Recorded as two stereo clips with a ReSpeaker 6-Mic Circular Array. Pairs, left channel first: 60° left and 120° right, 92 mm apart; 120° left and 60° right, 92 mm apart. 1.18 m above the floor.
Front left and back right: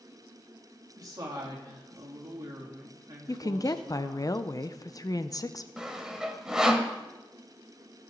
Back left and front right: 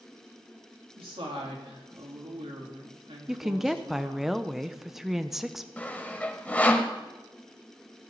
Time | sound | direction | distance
1.0 | a woman speaking | 70° right | 2.5 m
3.3 | a woman speaking | 25° left | 0.5 m
5.8 | sawing | 165° left | 1.0 m